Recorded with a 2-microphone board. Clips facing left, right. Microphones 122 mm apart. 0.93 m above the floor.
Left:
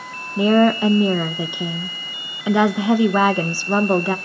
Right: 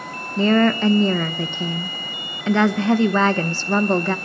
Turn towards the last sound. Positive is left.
turn(degrees=10)  # may be behind; listen again after turning